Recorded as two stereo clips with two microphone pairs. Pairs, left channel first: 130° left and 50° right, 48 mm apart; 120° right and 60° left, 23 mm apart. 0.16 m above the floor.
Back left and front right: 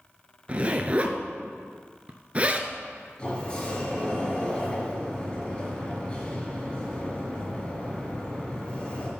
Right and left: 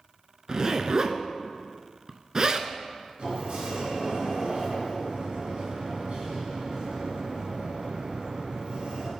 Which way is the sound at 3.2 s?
65° left.